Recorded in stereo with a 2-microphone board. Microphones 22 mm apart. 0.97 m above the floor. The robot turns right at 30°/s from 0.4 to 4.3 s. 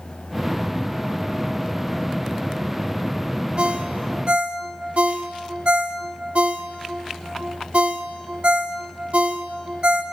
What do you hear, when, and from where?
3.6 s a ringtone: 50° right (ahead or behind), 0.7 m; by 10.0 s 60° right (ahead or behind), 0.7 m